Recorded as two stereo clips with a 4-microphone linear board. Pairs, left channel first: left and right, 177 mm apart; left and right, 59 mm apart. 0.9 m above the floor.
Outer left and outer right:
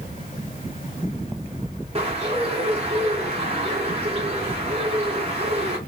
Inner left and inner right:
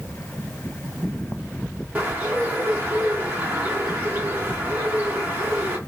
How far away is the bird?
About 0.8 m.